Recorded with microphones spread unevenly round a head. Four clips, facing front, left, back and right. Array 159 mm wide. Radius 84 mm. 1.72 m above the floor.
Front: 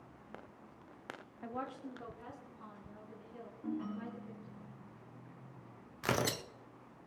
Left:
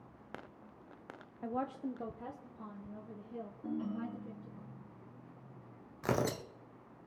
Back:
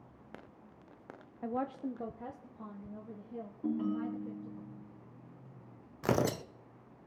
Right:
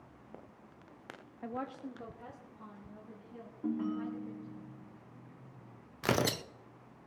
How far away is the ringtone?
About 5.5 m.